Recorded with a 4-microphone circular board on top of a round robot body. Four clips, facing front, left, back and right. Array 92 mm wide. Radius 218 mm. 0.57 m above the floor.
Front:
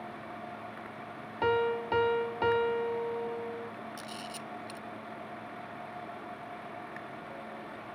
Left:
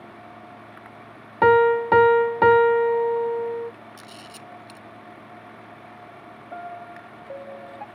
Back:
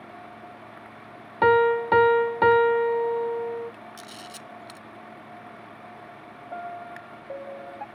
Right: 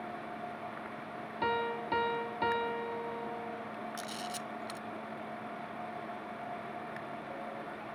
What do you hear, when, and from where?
1.4 s a piano: 115° left
4.0 s a camera shutter: 130° right
6.5 s a piano: 140° left